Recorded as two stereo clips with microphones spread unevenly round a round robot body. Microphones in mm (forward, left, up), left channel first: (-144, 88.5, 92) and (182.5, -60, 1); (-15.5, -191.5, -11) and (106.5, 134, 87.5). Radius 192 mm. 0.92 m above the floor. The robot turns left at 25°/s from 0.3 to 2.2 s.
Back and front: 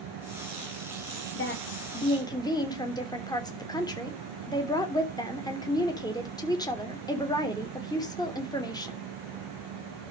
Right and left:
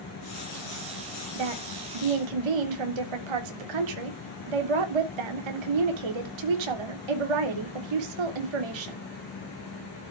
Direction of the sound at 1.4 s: 95° left.